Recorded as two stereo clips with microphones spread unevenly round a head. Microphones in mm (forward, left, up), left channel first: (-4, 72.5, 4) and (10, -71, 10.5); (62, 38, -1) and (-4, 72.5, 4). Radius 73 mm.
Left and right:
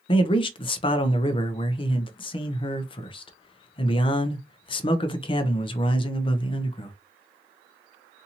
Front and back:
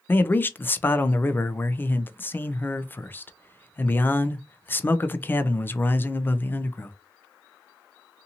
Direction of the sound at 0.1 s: 40° left.